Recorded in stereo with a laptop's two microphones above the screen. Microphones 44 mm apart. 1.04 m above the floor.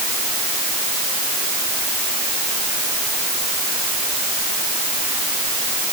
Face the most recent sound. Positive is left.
No sound to turn to.